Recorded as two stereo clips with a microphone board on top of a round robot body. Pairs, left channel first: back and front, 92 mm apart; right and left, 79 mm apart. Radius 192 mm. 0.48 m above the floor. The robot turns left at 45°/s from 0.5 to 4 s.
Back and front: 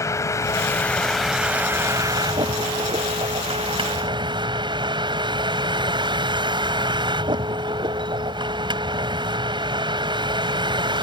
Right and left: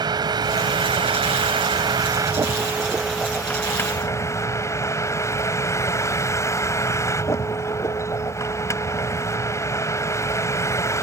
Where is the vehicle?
125° left; by 11.0 s 35° right.